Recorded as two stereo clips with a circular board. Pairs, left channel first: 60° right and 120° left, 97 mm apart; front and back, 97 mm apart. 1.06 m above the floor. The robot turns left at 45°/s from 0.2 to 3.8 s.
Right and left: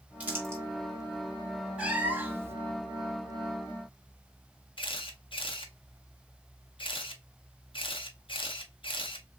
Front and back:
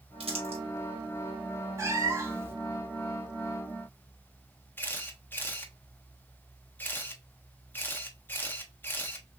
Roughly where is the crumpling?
Behind.